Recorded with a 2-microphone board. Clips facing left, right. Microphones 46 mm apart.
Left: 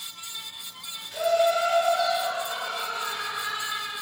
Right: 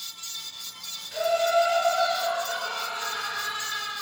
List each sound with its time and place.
1.1 s laughter: 30° right (ahead or behind), 1.0 m